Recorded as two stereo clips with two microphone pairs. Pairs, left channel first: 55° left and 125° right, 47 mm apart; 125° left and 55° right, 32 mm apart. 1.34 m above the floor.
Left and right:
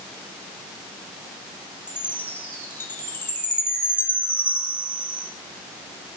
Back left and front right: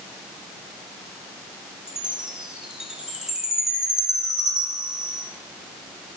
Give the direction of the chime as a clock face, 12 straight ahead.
11 o'clock.